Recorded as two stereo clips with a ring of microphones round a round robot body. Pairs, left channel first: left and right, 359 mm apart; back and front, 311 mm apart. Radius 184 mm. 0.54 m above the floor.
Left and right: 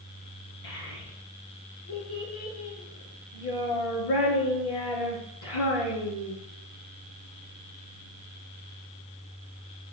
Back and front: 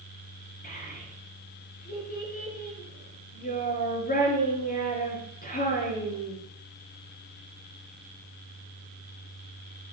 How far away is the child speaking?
About 6 m.